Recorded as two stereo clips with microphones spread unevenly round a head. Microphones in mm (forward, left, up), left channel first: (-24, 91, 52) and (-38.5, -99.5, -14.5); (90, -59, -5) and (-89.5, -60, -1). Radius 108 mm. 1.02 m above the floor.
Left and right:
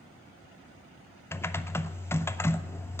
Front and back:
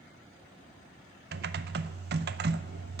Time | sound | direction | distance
1.3 | typing on a keyboard | 175° left | 0.5 m